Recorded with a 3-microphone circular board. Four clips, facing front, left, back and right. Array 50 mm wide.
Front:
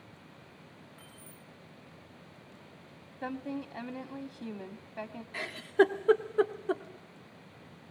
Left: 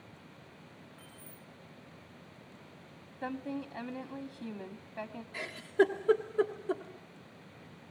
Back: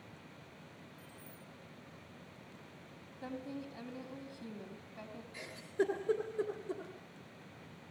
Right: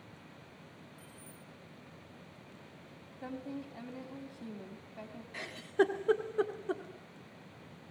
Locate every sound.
1.0 s keys jangling: 10° left, 2.5 m
3.2 s a woman speaking: 35° left, 1.4 m
5.3 s a giggle: 5° right, 1.6 m